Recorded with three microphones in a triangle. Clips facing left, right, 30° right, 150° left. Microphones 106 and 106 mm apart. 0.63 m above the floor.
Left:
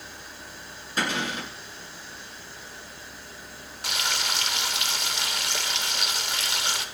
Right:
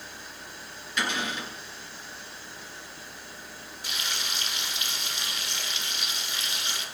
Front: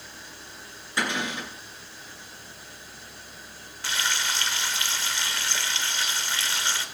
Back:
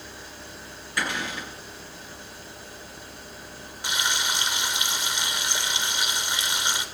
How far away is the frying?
About 1.4 m.